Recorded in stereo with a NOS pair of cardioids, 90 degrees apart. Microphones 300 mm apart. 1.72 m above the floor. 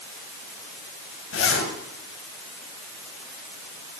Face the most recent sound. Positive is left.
turn(degrees=55)